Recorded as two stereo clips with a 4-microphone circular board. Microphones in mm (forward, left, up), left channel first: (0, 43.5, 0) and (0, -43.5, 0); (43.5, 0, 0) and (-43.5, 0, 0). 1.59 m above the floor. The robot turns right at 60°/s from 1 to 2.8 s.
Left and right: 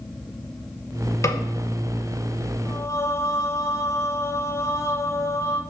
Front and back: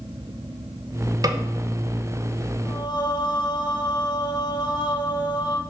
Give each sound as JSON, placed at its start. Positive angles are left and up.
{"t": 1.2, "sound": "a snare drum", "azimuth_deg": 140, "distance_m": 1.1}
{"t": 2.6, "sound": "singing", "azimuth_deg": 25, "distance_m": 1.3}